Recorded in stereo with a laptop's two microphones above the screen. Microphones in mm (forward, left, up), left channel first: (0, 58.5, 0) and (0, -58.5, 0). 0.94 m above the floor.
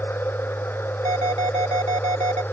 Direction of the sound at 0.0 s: 20° left (ahead or behind).